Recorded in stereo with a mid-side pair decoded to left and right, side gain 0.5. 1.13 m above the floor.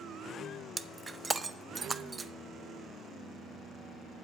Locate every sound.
0.8 s breaking glass: 25° right, 0.5 m